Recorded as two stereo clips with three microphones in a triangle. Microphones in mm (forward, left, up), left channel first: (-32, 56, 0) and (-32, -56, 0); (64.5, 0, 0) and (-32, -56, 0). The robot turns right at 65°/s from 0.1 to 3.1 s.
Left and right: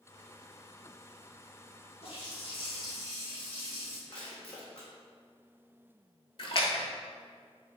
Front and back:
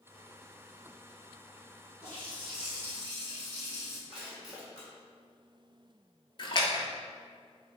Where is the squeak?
No squeak in this recording.